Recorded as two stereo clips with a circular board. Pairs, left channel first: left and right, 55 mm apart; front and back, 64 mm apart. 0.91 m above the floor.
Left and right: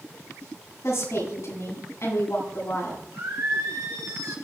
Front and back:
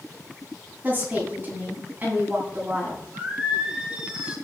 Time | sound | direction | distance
0.8 | a woman speaking | 120° left | 8.5 m
3.1 | singing | 105° right | 4 m